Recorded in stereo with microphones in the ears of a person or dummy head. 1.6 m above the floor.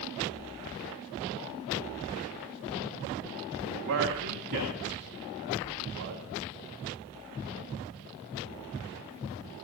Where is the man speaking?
70° right (ahead or behind), 2.5 m.